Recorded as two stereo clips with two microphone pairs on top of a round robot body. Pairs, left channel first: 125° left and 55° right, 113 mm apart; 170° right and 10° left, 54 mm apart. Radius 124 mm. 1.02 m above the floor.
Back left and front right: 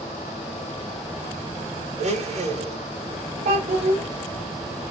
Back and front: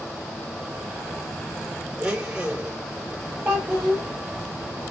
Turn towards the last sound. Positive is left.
turn(degrees=-60)